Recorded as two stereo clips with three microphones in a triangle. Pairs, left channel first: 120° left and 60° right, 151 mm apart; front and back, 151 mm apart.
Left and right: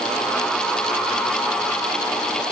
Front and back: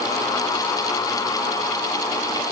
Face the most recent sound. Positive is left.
No sound to turn to.